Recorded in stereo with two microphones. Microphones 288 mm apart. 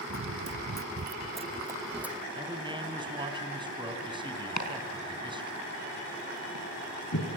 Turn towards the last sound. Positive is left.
turn(degrees=75)  # may be behind; listen again after turning